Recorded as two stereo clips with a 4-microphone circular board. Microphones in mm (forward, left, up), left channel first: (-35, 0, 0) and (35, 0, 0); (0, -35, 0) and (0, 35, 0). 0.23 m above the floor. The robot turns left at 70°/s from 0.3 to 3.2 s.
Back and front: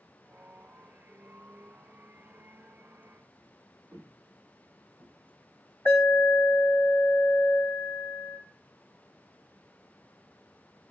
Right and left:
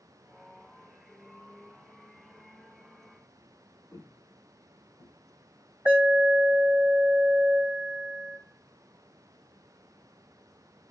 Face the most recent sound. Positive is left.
turn(degrees=125)